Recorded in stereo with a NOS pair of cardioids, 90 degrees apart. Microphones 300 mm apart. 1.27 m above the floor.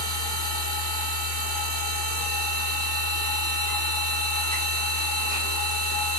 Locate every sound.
0.0 s a machine running: 20° right, 1.6 m